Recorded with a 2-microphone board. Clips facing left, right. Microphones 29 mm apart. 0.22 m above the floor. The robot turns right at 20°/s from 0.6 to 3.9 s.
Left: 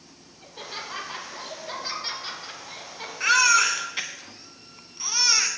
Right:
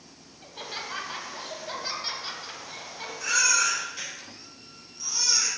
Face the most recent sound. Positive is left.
turn(degrees=60)  # may be behind; listen again after turning